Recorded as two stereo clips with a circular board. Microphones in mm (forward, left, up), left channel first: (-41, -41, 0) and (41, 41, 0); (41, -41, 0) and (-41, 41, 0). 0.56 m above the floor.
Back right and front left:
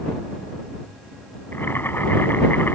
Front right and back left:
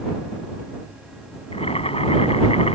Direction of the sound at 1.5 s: 65° right.